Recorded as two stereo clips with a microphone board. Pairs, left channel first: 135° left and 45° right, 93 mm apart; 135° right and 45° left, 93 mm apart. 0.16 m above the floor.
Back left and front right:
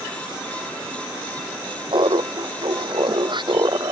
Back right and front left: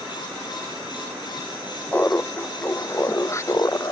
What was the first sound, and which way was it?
Laughter, 70° right.